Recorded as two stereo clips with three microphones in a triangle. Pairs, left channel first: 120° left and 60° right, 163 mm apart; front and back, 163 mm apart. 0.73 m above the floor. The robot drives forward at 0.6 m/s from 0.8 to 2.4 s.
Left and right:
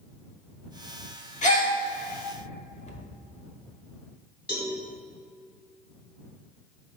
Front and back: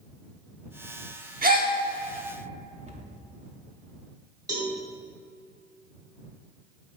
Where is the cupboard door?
150° left, 0.7 m.